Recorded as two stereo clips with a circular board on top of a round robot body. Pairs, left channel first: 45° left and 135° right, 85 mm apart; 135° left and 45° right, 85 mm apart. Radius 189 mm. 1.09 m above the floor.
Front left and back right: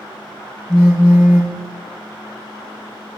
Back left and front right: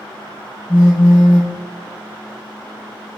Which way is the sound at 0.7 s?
80° left.